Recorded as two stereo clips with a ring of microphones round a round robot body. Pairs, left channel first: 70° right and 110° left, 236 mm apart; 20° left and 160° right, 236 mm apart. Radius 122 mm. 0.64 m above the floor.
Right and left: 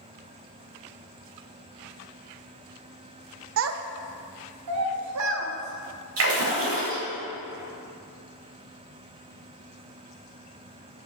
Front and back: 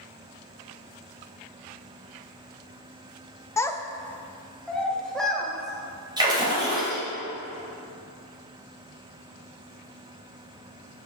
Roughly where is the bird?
No bird in this recording.